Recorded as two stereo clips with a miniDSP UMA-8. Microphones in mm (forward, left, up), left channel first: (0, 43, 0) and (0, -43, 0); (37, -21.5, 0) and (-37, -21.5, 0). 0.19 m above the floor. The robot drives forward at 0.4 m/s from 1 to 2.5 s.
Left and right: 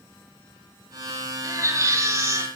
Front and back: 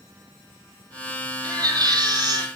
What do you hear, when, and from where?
1.4 s a baby crying: 145° right, 3 m; by 2.5 s 150° right, 3 m